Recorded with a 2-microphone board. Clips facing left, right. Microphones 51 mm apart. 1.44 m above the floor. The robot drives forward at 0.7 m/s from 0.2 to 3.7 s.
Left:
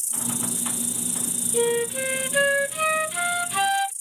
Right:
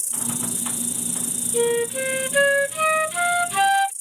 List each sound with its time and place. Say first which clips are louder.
0.0 s an insect: right 1 dB; 80° right; by 4.0 s 70° right (ahead or behind)
1.5 s a flute: right 2 dB; 10° right (ahead or behind); by 3.9 s 20° right (ahead or behind)